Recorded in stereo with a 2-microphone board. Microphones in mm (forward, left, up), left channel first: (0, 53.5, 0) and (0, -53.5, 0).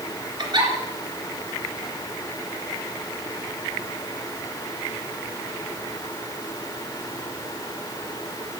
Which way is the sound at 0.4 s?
45° right (ahead or behind).